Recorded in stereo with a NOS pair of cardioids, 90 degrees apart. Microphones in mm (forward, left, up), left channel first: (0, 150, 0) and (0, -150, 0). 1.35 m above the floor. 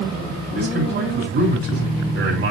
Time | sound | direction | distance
0.6 | a man speaking | 50° right | 4 m